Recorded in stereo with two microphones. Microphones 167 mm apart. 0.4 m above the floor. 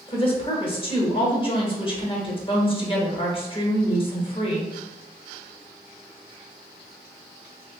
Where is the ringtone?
No ringtone in this recording.